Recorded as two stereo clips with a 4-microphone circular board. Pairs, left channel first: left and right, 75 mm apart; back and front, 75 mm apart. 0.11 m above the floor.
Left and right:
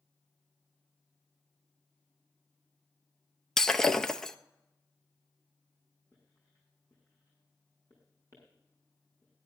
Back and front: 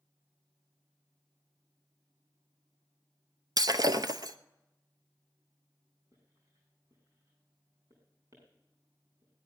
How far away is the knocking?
I don't hear knocking.